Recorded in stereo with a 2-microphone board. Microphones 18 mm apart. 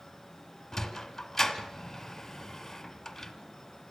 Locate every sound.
0.7 s a sliding door: 20° left (ahead or behind), 1.7 m